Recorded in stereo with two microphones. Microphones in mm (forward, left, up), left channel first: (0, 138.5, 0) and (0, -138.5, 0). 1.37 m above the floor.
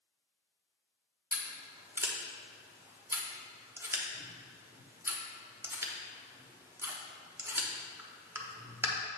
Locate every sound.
1.3 s scissors: 10° right (ahead or behind), 0.8 m